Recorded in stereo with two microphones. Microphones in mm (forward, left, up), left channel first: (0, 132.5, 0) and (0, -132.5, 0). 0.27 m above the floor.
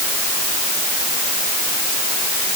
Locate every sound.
Only background noise.